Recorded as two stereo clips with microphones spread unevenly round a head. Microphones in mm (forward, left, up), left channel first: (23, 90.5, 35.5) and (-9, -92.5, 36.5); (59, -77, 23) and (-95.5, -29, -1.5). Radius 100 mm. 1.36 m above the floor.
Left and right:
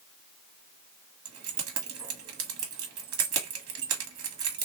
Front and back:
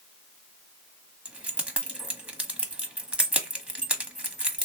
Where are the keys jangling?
110° right, 1.0 m.